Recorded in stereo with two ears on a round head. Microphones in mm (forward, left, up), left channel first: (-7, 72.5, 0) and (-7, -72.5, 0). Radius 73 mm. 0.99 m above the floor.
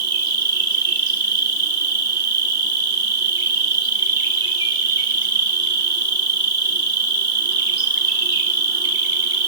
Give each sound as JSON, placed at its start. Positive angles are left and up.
{"t": 0.0, "sound": "an insect", "side_deg": -25, "distance_m": 1.0}